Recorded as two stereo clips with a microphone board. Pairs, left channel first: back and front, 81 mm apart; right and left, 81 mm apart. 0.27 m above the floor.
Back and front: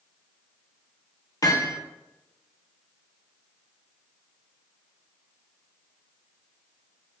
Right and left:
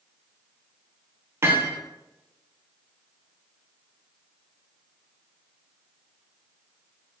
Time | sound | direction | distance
1.4 | hammering | 145° left | 1.5 m